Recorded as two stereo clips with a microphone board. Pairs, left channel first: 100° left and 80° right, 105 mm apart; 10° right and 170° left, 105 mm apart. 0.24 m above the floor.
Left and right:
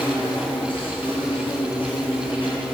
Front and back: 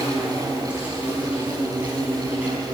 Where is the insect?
100° left, 4 m.